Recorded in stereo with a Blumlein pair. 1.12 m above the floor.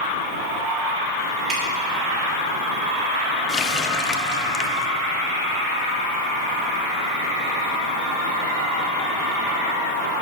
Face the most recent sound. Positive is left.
turn(degrees=20)